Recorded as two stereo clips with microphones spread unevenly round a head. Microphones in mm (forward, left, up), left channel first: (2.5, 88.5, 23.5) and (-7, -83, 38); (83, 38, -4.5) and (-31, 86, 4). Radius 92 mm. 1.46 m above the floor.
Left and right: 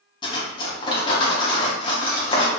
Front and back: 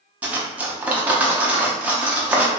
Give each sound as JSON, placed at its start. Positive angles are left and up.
{"t": 0.2, "sound": "cutlery clinking", "azimuth_deg": 120, "distance_m": 0.5}